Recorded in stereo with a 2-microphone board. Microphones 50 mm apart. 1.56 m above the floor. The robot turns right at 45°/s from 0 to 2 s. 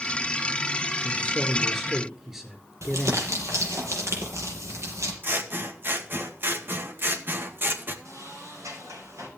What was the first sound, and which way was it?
A man speaking, 150° left.